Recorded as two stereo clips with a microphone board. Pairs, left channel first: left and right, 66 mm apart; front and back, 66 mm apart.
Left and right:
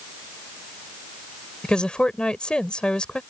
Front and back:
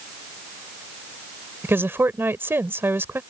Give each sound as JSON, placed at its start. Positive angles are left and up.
{"t": 1.6, "sound": "a woman speaking", "azimuth_deg": 155}